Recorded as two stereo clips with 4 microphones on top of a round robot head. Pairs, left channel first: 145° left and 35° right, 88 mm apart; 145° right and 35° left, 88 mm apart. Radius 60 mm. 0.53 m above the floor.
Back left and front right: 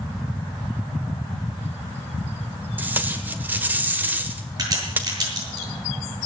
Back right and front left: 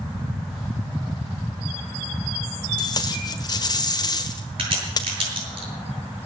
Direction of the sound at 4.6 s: 10° left.